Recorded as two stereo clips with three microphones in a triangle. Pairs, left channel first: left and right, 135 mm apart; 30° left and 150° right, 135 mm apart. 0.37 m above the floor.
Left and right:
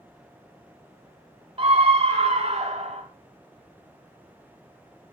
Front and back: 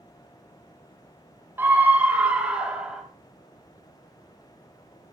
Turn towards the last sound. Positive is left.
turn(degrees=-65)